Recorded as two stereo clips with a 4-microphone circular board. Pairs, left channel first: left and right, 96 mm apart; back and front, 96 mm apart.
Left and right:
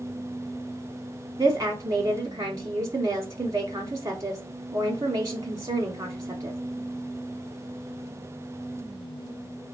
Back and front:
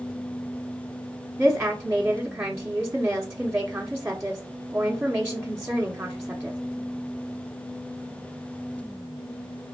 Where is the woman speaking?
55° right, 0.9 m.